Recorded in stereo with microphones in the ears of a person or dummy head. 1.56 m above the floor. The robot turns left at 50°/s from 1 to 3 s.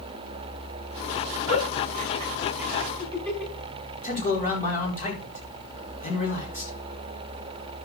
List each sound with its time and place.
1.5 s a giggle: 60° right (ahead or behind), 6.5 m; by 3.5 s 15° left (ahead or behind), 6.5 m
4.0 s a man speaking: 40° left (ahead or behind), 5 m